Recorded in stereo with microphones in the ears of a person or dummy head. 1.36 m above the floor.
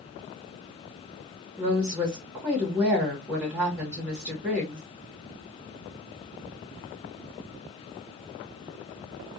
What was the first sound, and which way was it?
A woman speaking, 5° right (ahead or behind).